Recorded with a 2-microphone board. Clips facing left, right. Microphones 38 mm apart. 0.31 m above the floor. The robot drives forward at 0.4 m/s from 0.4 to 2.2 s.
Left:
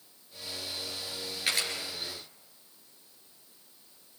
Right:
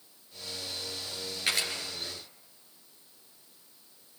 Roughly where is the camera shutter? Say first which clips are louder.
Even; centre.